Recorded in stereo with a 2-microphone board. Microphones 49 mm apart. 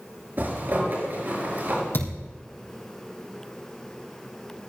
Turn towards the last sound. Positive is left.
turn(degrees=45)  # may be behind; listen again after turning